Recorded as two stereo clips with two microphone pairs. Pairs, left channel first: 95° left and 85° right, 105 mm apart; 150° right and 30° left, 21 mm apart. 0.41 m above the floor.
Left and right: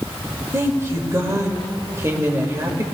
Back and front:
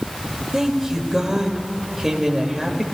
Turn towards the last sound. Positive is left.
turn(degrees=-35)